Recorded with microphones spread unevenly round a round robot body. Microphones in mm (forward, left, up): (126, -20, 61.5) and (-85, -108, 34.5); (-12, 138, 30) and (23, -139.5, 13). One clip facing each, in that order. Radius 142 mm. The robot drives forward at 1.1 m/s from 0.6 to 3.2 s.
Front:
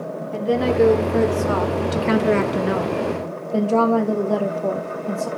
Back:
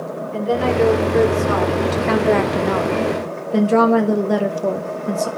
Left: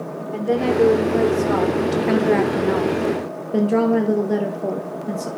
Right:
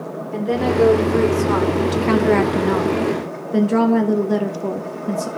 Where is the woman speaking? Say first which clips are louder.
Even, even; 10° right, 2.5 m; by 5.3 s 135° right, 1.1 m.